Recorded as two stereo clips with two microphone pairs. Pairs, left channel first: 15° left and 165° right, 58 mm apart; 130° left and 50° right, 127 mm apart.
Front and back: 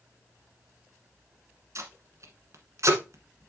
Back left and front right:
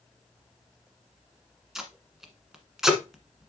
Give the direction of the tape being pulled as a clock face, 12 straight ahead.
5 o'clock.